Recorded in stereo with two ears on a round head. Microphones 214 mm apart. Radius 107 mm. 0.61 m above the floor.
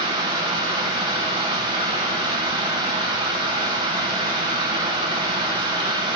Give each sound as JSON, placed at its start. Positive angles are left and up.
{"t": 0.0, "sound": "running water", "side_deg": -20, "distance_m": 3.0}